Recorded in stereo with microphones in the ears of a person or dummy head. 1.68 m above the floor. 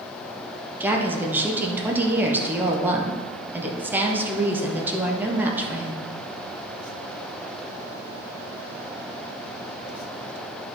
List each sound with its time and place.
0.8 s a woman speaking: 10° right (ahead or behind), 1.3 m